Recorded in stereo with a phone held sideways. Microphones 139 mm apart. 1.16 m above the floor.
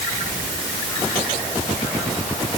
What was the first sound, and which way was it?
Only background noise.